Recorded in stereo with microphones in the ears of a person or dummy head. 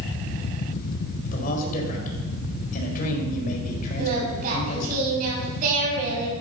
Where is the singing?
50° right (ahead or behind), 6 m.